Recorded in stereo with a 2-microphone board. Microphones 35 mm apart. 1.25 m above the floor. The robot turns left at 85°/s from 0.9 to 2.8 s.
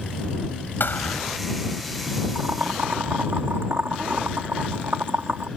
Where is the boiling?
45° right (ahead or behind); by 5.5 s 85° right.